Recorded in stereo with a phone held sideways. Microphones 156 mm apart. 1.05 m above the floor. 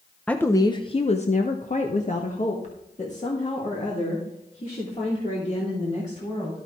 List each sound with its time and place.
0.3 s a woman speaking: 5° left (ahead or behind), 0.6 m; by 6.6 s 45° left (ahead or behind), 3.5 m